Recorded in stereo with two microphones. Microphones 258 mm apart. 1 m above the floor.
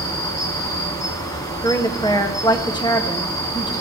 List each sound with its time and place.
0.0 s an insect: 15° left (ahead or behind), 2 m
1.6 s a woman speaking: 15° left (ahead or behind), 1.4 m